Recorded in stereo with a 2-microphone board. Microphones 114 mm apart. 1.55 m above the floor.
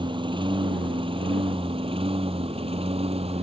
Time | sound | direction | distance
0.0 | a lawn mower | 45° right (ahead or behind) | ?